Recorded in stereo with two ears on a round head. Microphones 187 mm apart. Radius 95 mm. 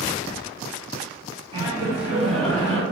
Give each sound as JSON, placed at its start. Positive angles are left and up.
{"t": 1.5, "sound": "laughter", "side_deg": -25, "distance_m": 1.0}